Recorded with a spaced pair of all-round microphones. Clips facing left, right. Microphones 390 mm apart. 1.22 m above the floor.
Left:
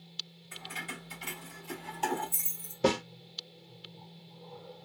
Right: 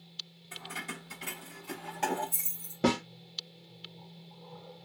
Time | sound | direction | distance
0.5 | keys jangling | 45° right (ahead or behind) | 1.5 m
2.8 | a snare drum | 65° right (ahead or behind) | 1.1 m